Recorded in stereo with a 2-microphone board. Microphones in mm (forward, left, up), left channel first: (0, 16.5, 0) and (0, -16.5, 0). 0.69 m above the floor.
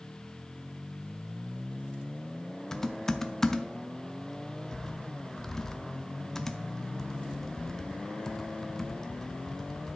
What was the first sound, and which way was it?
Typing on a keyboard, 15° left (ahead or behind).